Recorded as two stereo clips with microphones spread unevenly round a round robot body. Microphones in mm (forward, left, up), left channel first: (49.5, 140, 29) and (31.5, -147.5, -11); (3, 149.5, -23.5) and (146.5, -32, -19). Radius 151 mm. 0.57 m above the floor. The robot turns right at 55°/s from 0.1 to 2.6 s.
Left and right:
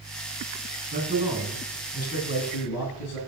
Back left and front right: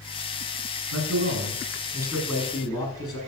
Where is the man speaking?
40° right, 6 m; by 3.2 s 55° left, 6 m.